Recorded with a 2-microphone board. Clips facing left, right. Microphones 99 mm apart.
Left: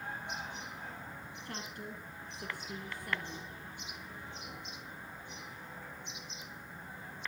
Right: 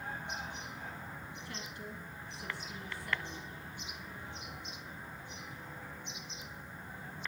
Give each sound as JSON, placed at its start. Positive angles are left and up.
{"t": 1.4, "sound": "a woman speaking", "side_deg": 50, "distance_m": 3.0}